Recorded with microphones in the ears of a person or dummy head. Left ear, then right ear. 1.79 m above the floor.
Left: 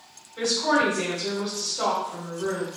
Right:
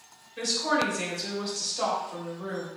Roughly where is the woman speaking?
Centre.